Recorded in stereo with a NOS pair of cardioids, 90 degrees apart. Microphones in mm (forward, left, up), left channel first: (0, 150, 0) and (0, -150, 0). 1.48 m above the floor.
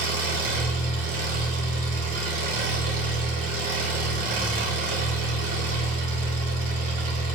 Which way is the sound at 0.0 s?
50° right.